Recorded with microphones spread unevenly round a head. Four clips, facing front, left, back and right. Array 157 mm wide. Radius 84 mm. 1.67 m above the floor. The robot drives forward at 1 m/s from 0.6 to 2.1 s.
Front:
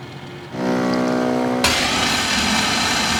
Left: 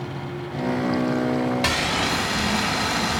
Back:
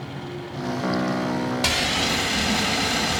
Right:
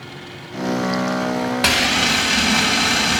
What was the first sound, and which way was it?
Frying, 40° right.